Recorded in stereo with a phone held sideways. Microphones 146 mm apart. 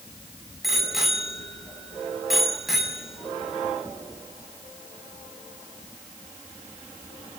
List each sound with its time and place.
0.6 s a bicycle bell: centre (ahead or behind), 6.5 m